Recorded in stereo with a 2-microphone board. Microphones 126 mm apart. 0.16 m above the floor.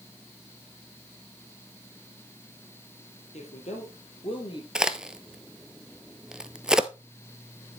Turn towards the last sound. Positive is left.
turn(degrees=-5)  # may be behind; listen again after turning